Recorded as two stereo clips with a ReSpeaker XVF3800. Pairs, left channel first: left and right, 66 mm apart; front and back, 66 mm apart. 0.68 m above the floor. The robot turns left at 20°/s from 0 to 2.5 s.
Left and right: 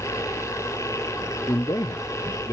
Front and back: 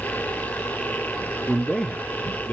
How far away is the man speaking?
About 1.0 m.